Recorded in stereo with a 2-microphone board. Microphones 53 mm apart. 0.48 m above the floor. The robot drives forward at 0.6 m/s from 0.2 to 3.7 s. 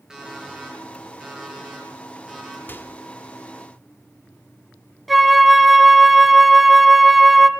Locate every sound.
0.1 s an alarm clock: 10° right (ahead or behind), 6 m
2.7 s a microwave: 40° left (ahead or behind), 1.1 m; by 2.9 s 45° left (ahead or behind), 1.1 m
5.1 s a flute: centre (ahead or behind), 1.1 m